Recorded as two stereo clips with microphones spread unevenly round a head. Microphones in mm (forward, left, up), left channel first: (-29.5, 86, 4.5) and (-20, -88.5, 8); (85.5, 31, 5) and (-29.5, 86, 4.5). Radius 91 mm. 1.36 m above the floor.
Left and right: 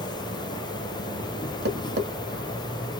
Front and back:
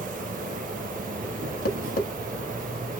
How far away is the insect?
About 0.7 m.